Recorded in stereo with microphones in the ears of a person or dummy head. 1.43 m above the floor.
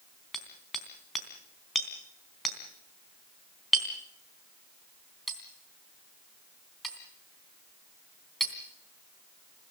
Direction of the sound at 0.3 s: Centre (ahead or behind).